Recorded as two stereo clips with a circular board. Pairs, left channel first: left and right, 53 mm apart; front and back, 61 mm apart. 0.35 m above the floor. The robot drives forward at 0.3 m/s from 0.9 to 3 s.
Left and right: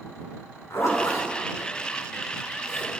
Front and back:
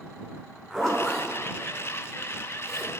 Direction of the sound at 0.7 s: 80° left.